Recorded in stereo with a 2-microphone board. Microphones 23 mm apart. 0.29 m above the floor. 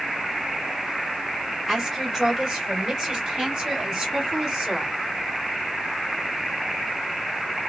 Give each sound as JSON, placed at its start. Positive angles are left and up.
{"t": 1.7, "sound": "a woman speaking", "side_deg": -20, "distance_m": 1.7}